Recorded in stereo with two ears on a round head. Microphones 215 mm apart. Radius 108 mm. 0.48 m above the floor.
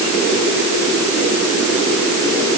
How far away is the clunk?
I don't hear a clunk.